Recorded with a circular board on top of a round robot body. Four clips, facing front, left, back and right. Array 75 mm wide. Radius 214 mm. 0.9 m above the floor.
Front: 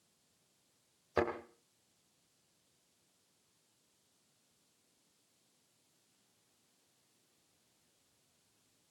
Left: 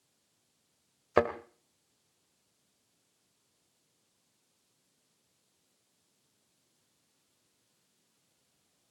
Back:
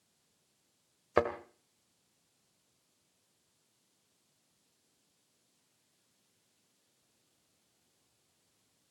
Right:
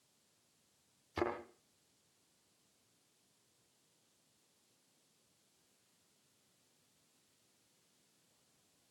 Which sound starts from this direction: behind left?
A thud, at 1.2 s.